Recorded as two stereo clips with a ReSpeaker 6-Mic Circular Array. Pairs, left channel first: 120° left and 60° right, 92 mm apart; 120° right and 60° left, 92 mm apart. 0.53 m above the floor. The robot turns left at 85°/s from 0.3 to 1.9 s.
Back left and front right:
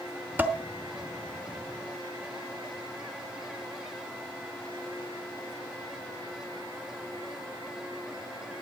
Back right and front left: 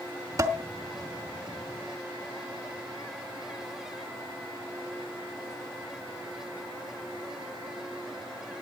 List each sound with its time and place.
0.4 s dishes clattering: 10° left, 1.0 m; by 0.6 s 10° right, 1.0 m